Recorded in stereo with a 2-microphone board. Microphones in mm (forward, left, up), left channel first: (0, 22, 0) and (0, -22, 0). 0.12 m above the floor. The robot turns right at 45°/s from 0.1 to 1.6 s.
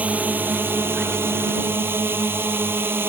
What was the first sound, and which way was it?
A drone, 140° right.